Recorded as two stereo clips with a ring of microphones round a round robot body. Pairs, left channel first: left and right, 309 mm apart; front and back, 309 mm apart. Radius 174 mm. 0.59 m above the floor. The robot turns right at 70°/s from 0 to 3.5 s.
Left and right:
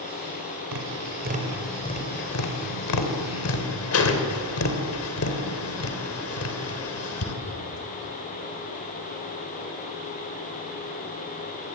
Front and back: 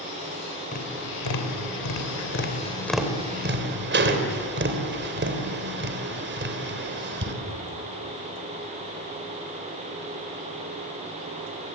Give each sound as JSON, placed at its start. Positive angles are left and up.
{"t": 0.7, "sound": "tapping", "azimuth_deg": -65, "distance_m": 3.0}